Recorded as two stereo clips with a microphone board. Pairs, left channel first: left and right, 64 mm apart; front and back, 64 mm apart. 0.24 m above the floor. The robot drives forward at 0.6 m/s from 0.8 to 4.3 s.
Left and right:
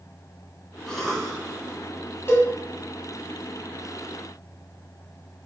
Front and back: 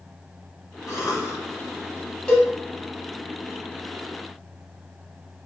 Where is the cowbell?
70° left, 1.5 m; by 2.5 s 75° left, 1.4 m.